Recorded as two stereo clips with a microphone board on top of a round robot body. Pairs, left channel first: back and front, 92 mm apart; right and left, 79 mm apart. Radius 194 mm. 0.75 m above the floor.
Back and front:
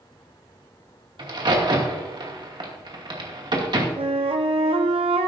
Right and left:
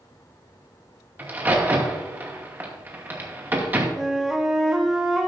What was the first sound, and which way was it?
A crack, 25° left.